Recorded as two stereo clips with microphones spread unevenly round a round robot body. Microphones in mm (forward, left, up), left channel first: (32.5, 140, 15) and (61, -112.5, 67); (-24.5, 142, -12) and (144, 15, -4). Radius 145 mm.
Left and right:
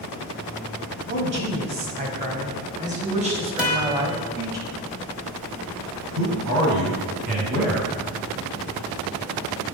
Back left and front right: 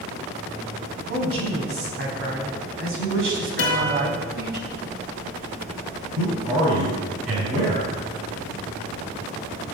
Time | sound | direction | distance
1.1 | a man speaking | 35° right | 3 m
3.6 | a guitar | 175° right | 1.4 m
6.2 | a man speaking | 65° right | 4.5 m